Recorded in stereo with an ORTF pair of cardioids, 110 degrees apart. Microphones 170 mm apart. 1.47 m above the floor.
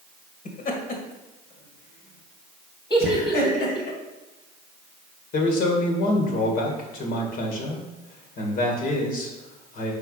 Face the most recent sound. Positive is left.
turn(degrees=60)